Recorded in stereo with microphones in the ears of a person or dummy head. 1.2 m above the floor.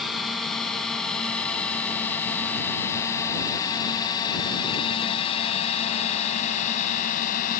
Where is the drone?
5° left (ahead or behind); by 7.6 s 50° left (ahead or behind).